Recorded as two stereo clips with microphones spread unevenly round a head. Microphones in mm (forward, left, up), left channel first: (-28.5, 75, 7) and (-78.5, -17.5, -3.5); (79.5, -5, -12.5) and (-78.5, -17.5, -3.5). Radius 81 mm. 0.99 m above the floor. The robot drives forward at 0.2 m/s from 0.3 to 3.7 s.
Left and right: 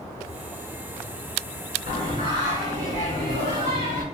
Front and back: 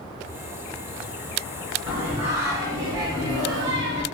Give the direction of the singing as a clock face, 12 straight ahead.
3 o'clock.